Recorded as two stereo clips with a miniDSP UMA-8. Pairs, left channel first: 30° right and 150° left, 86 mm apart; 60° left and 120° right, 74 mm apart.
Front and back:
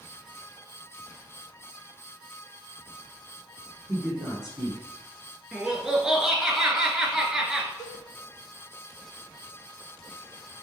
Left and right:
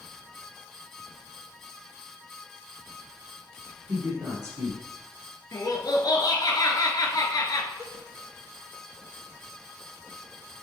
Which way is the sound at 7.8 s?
80° right.